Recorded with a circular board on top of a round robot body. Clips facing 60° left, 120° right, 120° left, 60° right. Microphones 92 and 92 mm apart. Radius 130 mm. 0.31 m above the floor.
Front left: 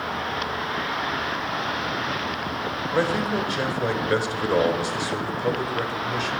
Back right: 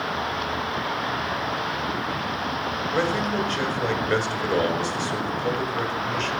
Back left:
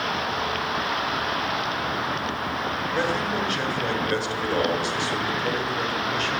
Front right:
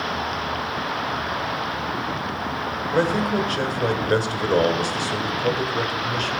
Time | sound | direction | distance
2.9 | a man speaking | 20° right | 1.7 m